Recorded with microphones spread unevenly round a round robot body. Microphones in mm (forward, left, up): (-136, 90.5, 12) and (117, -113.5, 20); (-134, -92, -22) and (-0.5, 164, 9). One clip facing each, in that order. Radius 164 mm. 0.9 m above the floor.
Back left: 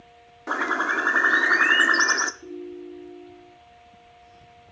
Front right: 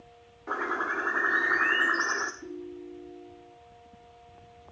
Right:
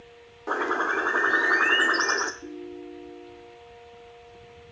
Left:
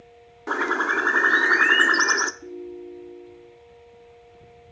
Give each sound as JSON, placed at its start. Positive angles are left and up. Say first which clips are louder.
{"t": 0.5, "sound": "a bird", "louder": "back left 4 dB, left 1 dB", "azimuth_deg": 115, "distance_m": 0.7}
{"t": 2.4, "sound": "a ringtone", "louder": "back left 4 dB, left 2 dB", "azimuth_deg": 10, "distance_m": 3.0}